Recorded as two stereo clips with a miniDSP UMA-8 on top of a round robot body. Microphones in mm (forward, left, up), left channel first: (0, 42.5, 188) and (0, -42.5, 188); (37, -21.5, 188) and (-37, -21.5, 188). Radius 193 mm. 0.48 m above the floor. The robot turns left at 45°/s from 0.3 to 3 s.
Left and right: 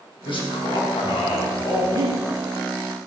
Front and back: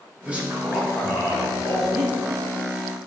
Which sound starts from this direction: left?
A man speaking, at 0.2 s.